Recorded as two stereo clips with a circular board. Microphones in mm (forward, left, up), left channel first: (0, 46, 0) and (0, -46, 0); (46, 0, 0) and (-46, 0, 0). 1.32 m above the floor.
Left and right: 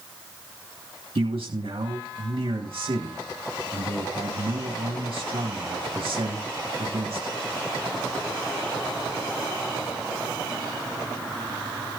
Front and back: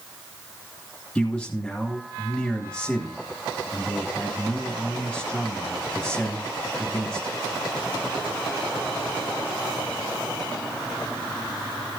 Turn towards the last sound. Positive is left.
turn(degrees=-85)